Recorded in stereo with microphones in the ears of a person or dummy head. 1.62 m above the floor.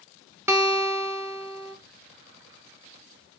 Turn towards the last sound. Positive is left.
turn(degrees=-10)  # may be behind; listen again after turning